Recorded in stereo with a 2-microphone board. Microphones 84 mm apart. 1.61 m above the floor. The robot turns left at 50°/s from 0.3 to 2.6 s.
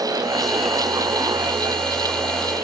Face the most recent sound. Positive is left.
No sound to turn to.